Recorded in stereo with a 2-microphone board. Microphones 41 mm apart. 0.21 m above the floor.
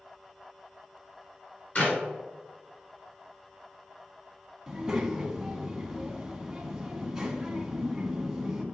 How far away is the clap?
About 2.5 m.